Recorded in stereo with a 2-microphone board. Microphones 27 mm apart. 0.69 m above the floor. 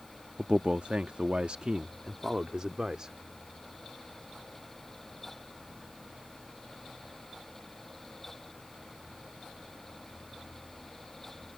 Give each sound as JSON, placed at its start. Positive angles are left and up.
{"t": 0.4, "sound": "a man speaking", "side_deg": -45}